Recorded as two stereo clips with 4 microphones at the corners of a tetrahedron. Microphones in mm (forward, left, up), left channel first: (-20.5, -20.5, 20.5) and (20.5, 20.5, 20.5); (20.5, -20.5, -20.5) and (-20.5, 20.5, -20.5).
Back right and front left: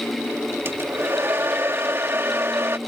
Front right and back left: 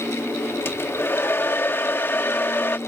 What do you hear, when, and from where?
0.7 s a hair dryer: straight ahead